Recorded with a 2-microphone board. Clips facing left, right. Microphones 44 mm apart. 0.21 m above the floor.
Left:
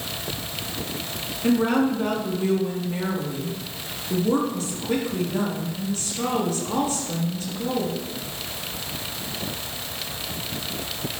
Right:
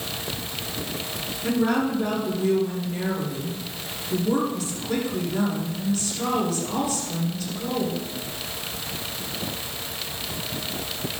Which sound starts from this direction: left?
A woman speaking, at 1.4 s.